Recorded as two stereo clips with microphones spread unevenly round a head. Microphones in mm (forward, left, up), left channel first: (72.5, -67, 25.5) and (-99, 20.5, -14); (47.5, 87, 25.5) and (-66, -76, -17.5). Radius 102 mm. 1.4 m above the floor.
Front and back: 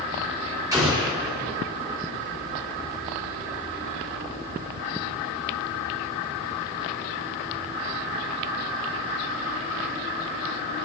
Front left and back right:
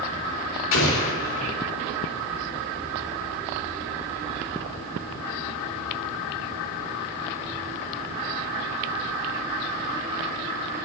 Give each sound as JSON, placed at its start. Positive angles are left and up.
{"t": 0.7, "sound": "an explosion", "azimuth_deg": 80, "distance_m": 3.5}